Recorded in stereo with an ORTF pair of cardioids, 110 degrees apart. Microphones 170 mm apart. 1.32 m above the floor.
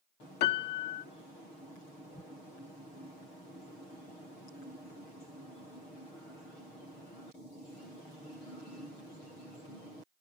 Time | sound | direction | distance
0.4 | a piano | 70° left | 1.2 m